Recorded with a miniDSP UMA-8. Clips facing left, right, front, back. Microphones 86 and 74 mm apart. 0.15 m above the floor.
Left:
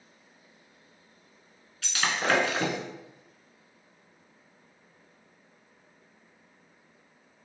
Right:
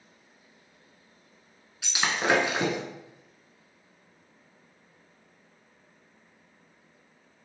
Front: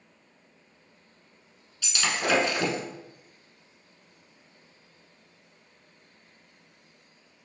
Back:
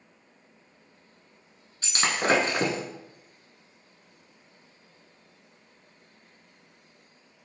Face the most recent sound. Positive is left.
turn(degrees=-160)